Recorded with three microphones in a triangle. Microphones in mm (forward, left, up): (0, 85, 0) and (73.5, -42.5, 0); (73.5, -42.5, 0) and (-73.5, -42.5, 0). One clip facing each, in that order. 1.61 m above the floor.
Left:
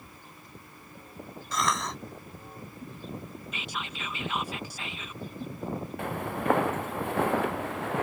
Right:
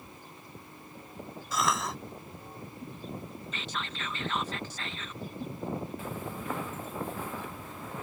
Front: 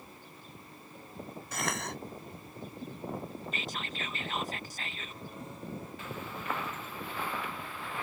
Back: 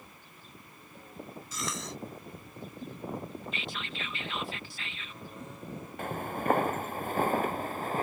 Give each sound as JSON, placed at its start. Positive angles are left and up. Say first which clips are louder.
{"t": 1.5, "sound": "a cough", "louder": "even, front 3 dB", "azimuth_deg": 25}
{"t": 3.5, "sound": "whispering", "louder": "even, even", "azimuth_deg": 40}
{"t": 6.0, "sound": "footsteps", "louder": "left 6 dB, back 7 dB", "azimuth_deg": 140}